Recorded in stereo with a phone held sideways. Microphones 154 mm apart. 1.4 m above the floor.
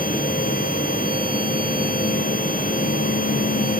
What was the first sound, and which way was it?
A machine running, 75° left (ahead or behind).